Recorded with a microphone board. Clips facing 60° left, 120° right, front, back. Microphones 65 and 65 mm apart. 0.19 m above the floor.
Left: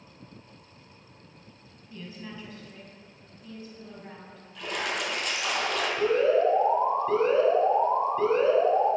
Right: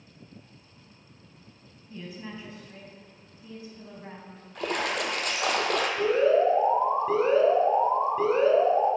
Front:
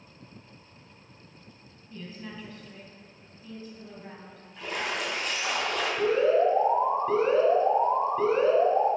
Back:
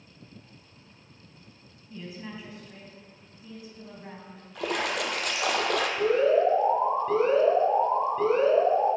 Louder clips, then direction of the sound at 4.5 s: Right 3 dB, back 3 dB; 160° right.